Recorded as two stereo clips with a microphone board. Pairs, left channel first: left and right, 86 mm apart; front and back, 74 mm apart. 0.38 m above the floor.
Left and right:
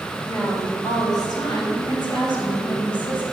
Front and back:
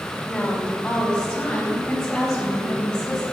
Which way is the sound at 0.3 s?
70° left.